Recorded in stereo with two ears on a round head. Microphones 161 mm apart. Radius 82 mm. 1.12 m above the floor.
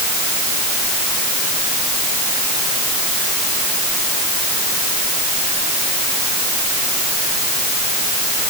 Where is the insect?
No insect in this recording.